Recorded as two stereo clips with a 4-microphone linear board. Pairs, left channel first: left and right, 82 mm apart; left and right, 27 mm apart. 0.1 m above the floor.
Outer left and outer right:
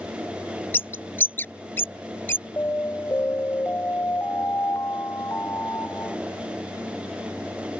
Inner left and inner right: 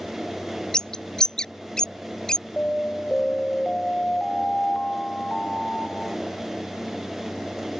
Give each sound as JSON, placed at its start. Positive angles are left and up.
{"t": 0.7, "sound": "a bird", "side_deg": 30}
{"t": 2.6, "sound": "an alarm", "side_deg": 30}